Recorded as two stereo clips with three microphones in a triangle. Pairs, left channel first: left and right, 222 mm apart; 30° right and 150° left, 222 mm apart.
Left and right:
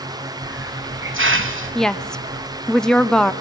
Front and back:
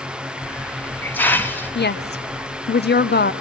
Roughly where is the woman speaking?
Ahead.